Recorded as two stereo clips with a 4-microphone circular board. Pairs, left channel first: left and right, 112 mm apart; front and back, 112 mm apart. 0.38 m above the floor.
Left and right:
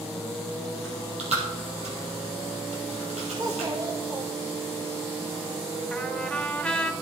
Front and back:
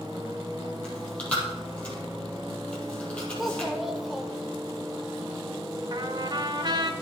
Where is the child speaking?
95° right, 1.1 m.